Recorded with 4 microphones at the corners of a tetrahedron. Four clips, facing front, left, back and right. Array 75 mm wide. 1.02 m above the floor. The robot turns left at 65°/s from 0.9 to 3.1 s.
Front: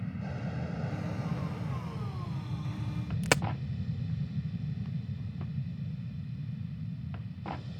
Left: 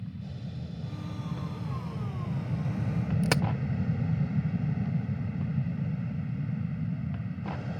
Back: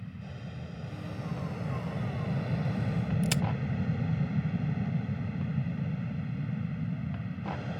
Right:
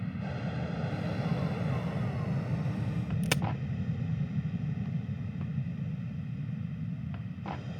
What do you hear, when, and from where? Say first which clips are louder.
0.0 s an aircraft: right 4 dB, front 5 dB; 65° right; by 7.8 s 150° left
3.2 s a crack: left 4 dB, front 6 dB; 25° left